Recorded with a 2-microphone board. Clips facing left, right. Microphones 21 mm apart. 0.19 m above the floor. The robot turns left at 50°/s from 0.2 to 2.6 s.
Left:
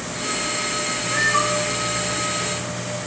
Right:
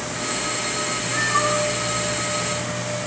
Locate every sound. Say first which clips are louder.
1.1 s a cat meowing: left 1 dB; 15° left (ahead or behind), 4.5 m; by 1.7 s 10° right (ahead or behind), 4.5 m